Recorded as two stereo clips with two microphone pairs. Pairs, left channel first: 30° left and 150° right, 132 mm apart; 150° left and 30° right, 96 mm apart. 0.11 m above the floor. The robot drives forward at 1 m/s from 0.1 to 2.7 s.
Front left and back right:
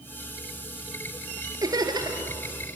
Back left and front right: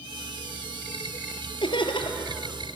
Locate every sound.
1.6 s laughter: 155° left, 2.5 m; by 2.3 s 160° left, 3 m